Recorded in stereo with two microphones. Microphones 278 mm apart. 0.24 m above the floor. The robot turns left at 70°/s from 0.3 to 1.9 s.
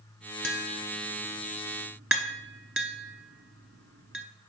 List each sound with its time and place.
0.4 s tapping: 50° left (ahead or behind), 0.8 m; by 4.2 s 50° right (ahead or behind), 0.8 m